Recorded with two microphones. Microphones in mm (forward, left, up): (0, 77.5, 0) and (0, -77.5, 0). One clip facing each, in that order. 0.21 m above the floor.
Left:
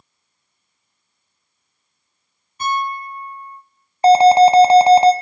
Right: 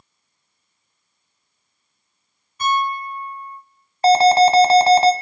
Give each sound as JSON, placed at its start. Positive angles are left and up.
{"t": 2.6, "sound": "a piano", "side_deg": 35, "distance_m": 3.0}
{"t": 4.0, "sound": "an alarm", "side_deg": 15, "distance_m": 0.9}